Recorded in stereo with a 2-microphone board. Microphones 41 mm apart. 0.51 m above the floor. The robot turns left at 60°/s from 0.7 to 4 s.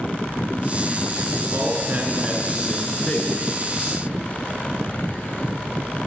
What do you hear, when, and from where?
1.5 s a man speaking: 115° right, 5.5 m; by 3.3 s 135° left, 5.5 m